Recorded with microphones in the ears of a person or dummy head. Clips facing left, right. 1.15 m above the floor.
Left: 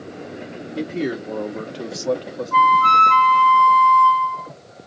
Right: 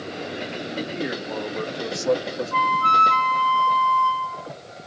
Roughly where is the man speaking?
Left.